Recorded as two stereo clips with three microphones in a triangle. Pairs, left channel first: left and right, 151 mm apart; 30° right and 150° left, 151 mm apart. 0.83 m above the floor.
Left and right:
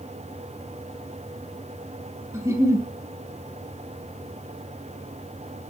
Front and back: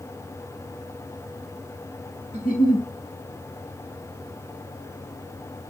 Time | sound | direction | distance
2.3 | a giggle | 20° right | 3 m